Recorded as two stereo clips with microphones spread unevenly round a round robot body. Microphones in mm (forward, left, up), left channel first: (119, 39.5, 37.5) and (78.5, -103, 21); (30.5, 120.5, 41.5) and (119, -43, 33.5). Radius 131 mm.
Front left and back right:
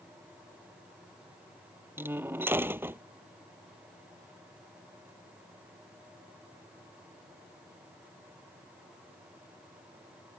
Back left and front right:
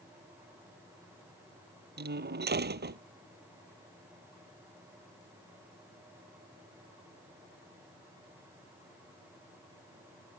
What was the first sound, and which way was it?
A door slam, 30° right.